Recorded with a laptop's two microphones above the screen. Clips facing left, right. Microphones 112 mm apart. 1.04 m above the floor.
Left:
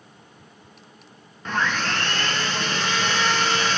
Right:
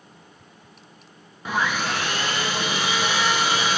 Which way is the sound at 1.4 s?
10° right (ahead or behind).